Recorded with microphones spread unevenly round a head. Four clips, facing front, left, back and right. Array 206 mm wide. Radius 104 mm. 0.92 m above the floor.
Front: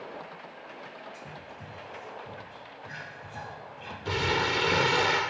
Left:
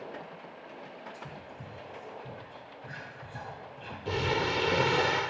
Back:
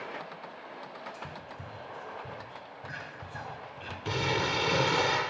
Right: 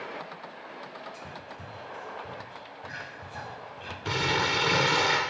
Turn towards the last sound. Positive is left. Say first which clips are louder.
# right 1 dB, front 2 dB
turn(degrees=-115)